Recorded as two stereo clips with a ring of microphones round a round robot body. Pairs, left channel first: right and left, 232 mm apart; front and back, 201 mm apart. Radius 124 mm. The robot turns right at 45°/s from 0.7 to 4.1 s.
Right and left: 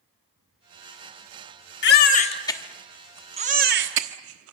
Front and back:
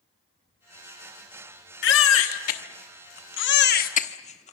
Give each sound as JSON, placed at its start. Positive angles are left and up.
{"t": 1.8, "sound": "a baby crying", "azimuth_deg": -45, "distance_m": 1.2}